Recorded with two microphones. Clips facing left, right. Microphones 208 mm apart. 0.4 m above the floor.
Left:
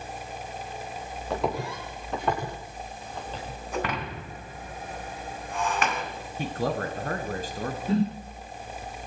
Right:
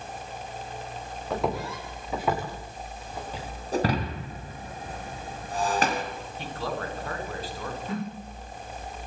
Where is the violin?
No violin in this recording.